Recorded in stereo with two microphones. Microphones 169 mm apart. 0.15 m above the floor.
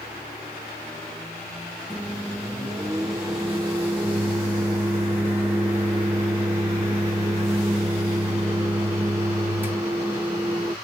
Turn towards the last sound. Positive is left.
turn(degrees=-10)  # may be behind; listen again after turning